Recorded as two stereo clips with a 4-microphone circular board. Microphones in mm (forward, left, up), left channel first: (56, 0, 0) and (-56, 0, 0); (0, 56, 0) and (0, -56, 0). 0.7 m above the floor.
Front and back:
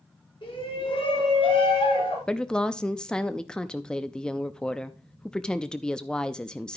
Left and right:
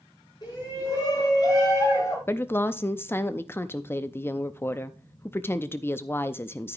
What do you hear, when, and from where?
0.4 s a shout: 40° left, 7 m; by 2.2 s 35° left, 5.5 m
2.3 s a woman speaking: 70° left, 0.5 m